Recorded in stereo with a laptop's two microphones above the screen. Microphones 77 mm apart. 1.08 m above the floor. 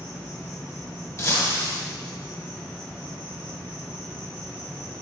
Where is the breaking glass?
40° left (ahead or behind), 1.2 m.